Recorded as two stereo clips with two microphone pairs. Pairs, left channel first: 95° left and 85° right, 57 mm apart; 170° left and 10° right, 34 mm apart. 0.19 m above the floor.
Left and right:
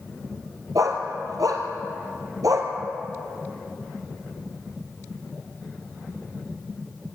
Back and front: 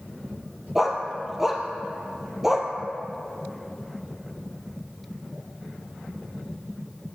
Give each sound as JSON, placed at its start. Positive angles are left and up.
{"t": 0.8, "sound": "a dog barking", "azimuth_deg": -85, "distance_m": 2.0}